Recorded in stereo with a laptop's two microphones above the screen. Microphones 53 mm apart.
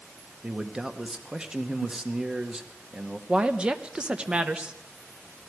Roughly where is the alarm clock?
No alarm clock in this recording.